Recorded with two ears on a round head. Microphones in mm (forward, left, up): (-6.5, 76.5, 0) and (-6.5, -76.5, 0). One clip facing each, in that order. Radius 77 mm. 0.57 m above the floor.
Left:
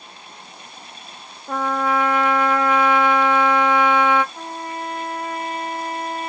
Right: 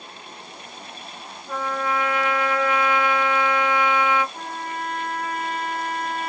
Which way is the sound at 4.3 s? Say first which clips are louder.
Left 1 dB; 35° right (ahead or behind).